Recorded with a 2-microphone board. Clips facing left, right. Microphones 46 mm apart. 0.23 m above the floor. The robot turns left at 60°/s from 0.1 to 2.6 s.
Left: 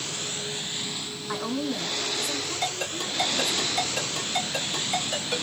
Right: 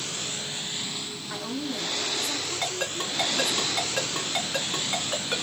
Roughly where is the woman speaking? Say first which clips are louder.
Left 4 dB; left.